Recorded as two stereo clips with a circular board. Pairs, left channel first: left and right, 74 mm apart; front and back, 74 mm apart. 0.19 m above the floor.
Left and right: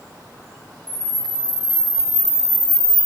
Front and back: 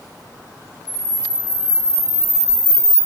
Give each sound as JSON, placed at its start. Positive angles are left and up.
{"t": 0.9, "sound": "a camera shutter", "azimuth_deg": -50, "distance_m": 1.8}